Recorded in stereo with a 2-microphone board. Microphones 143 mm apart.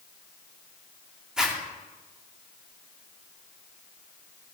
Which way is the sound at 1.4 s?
5° right (ahead or behind).